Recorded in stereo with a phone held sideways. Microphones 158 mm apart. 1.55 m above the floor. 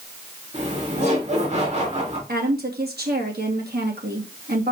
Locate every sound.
0.5 s laughter: 45° right (ahead or behind), 3.5 m
2.3 s a woman speaking: 85° right, 2.5 m